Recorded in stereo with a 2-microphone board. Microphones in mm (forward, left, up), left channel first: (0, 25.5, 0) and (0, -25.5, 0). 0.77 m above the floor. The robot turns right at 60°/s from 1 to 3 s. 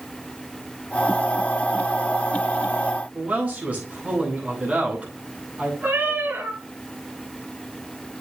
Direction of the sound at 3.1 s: 25° right (ahead or behind).